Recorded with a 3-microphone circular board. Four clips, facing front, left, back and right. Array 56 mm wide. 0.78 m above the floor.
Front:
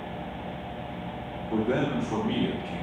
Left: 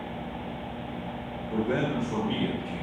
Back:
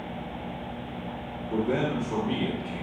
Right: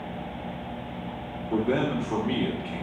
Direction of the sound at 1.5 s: 90° right.